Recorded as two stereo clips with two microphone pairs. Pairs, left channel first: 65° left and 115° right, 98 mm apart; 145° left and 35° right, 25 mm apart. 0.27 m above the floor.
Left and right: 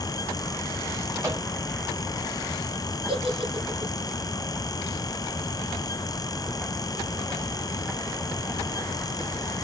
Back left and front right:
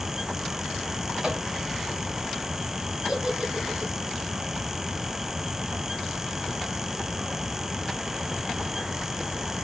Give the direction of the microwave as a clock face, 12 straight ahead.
3 o'clock.